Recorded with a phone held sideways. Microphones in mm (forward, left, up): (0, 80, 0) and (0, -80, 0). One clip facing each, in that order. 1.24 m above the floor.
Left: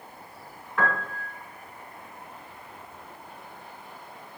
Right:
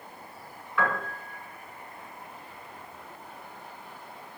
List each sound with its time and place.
0.8 s a piano: 45° left (ahead or behind), 1.8 m